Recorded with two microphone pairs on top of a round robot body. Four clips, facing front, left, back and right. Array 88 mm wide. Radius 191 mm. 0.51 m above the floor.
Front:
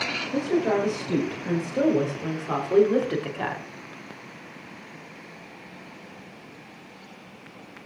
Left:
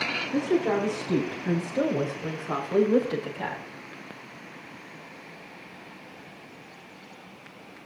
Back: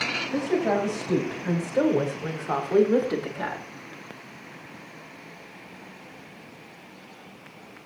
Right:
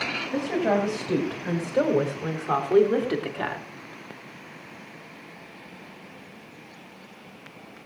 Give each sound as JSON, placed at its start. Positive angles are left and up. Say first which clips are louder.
{"t": 0.3, "sound": "a woman speaking", "louder": "even, front 1 dB", "azimuth_deg": -100, "distance_m": 6.5}